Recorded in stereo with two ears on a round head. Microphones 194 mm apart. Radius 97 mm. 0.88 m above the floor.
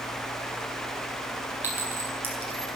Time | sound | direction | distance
1.6 | a clink | 10° right (ahead or behind) | 4.5 m